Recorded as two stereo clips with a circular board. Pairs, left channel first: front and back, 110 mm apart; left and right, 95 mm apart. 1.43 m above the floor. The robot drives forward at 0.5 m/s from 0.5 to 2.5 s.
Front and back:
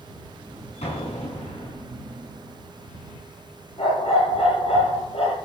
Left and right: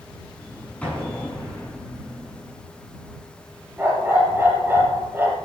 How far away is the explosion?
About 8 m.